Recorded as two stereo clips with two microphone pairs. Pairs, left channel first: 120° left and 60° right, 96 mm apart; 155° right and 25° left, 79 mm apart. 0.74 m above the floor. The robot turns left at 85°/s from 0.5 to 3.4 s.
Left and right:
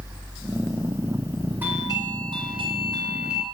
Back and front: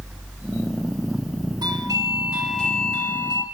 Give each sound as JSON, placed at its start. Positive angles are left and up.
{"t": 1.6, "sound": "a doorbell", "azimuth_deg": 10, "distance_m": 3.0}